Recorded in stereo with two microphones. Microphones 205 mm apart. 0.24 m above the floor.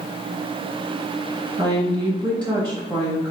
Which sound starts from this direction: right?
A woman speaking, at 1.6 s.